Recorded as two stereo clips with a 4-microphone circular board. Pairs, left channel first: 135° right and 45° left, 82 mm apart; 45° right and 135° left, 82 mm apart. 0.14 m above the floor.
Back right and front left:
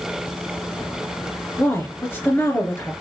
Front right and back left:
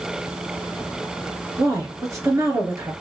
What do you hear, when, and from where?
1.6 s a woman speaking: 175° left, 2.5 m